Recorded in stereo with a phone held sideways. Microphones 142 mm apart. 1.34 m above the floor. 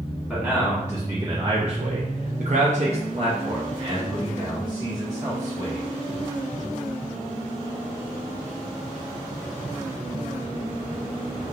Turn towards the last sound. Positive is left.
turn(degrees=-30)  # may be behind; listen again after turning